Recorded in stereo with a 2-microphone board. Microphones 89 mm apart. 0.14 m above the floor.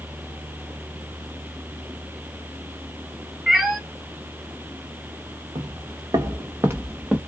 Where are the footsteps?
65° right (ahead or behind), 1.0 m; by 7.2 s 10° right (ahead or behind), 0.9 m.